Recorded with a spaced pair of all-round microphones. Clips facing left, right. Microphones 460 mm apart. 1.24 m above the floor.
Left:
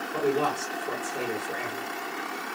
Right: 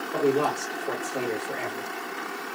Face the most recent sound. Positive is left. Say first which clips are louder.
# right 3 dB
turn(degrees=-80)